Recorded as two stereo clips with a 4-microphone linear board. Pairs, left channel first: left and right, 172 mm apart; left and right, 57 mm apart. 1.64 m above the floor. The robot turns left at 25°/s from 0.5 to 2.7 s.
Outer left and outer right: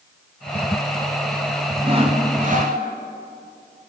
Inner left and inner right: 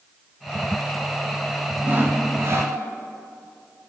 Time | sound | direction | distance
1.8 | sawing | 30° right (ahead or behind) | 4 m